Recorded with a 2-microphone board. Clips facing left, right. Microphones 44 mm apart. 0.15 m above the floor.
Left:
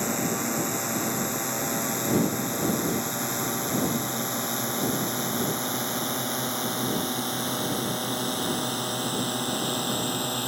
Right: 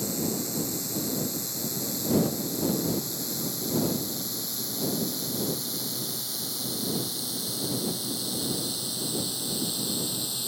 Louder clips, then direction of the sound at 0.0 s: Left 3 dB; 50° left (ahead or behind).